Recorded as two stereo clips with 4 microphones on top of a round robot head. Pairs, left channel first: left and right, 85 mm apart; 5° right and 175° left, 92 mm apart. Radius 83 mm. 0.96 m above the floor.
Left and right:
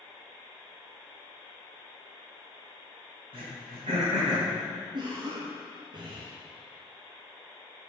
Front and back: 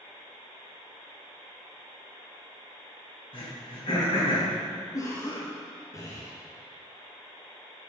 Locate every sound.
3.3 s throat clearing: 45° right, 3.5 m
4.9 s a cough: 55° right, 1.2 m